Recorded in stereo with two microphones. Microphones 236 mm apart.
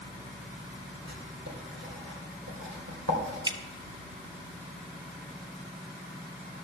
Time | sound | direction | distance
1.1 | writing | 80° right | 2.5 m
3.5 | dripping | 20° right (ahead or behind) | 0.6 m